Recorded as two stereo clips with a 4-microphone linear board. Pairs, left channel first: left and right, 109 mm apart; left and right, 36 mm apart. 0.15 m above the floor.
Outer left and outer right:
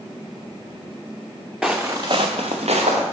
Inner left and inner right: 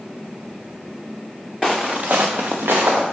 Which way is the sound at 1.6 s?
5° right (ahead or behind).